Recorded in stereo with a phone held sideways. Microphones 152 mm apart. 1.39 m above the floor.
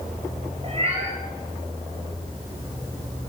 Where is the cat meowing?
40° right (ahead or behind), 8 m.